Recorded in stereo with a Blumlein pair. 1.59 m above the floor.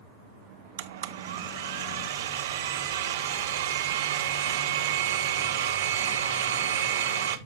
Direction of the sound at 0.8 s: 60° right.